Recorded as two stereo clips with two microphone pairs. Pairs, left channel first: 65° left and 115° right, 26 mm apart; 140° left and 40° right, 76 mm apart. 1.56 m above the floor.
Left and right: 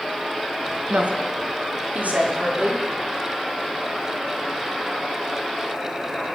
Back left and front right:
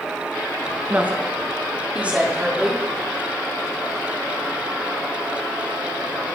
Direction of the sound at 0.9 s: 110° right.